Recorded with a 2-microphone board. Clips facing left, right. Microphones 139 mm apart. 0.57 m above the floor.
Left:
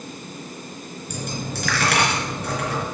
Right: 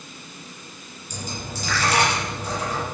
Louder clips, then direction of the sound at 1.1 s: Left 4 dB; 80° left.